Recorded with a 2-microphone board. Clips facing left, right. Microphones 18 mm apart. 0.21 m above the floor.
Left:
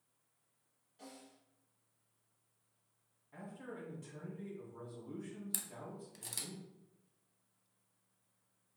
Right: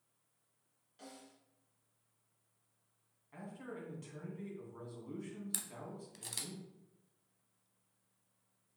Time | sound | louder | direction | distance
1.0 | a snare drum | even | 40° right (ahead or behind) | 2.5 m
3.3 | a man speaking | right 1 dB | 40° right (ahead or behind) | 2.0 m
5.5 | a camera shutter | right 1 dB | 15° right (ahead or behind) | 0.7 m